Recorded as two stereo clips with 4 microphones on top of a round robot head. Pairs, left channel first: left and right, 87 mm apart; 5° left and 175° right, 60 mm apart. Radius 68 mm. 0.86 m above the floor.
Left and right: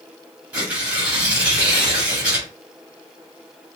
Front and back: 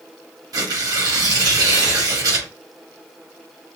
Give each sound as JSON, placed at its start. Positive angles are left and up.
{"t": 0.5, "sound": "tearing paper", "azimuth_deg": -165, "distance_m": 1.8}